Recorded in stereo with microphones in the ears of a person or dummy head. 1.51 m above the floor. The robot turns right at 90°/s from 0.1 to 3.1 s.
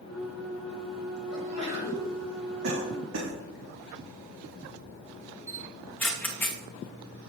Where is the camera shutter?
5° left (ahead or behind), 0.7 m.